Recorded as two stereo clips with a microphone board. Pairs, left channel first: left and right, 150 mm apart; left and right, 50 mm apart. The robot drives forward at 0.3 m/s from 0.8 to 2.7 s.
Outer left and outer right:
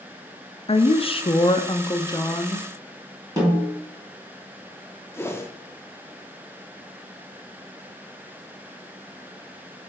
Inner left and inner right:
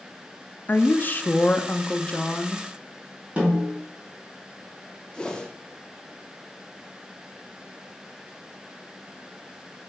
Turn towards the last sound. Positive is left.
turn(degrees=15)  # may be behind; listen again after turning